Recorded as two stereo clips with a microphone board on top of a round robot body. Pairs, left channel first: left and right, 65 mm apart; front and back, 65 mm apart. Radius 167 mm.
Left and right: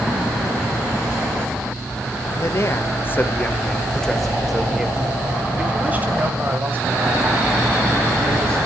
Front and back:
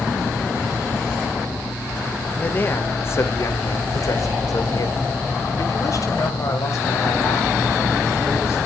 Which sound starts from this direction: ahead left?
A man speaking, at 2.3 s.